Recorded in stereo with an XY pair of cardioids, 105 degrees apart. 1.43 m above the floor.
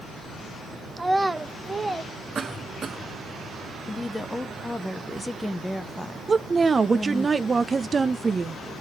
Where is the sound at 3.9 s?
10° left, 0.6 m.